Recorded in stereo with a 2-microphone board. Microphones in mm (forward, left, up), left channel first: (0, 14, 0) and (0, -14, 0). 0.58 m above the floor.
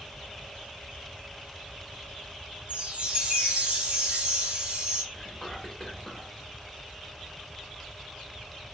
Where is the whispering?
10° left (ahead or behind), 1.4 m.